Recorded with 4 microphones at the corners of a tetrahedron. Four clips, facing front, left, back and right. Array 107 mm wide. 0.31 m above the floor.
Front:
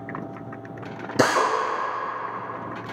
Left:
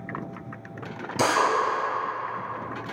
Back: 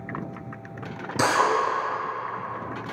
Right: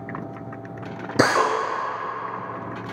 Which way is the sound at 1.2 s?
60° right.